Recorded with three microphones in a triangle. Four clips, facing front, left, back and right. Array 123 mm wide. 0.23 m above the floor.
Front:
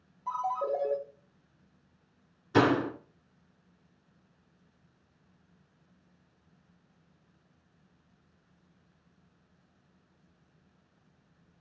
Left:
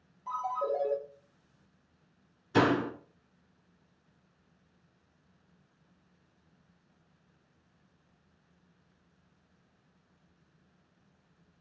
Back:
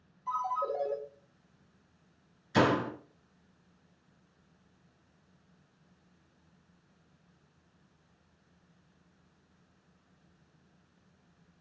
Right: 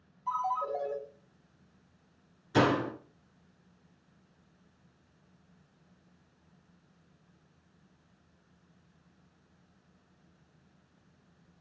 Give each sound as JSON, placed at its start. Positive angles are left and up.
{"t": 0.3, "sound": "a ringtone", "azimuth_deg": 25, "distance_m": 3.0}
{"t": 2.5, "sound": "a door slam", "azimuth_deg": 0, "distance_m": 2.5}